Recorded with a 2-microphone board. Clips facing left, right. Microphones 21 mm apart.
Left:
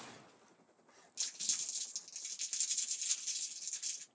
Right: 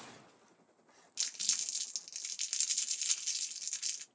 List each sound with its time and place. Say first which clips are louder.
1.2 s crumpling: right 4 dB; 35° right (ahead or behind), 0.7 m